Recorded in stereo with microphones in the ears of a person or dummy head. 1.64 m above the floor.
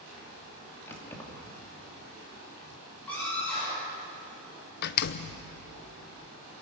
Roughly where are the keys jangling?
Centre.